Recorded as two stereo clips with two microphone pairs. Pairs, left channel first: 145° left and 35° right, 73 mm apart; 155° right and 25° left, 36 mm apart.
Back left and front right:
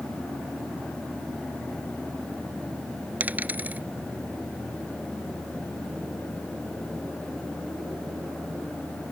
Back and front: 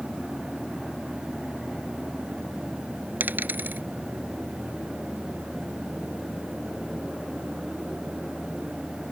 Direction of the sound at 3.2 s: 30° left.